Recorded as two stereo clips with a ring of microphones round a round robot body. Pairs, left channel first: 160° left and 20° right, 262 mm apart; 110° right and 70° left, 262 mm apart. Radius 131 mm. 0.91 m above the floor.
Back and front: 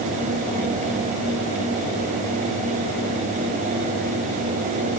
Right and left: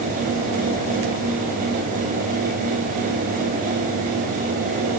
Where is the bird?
I don't hear a bird.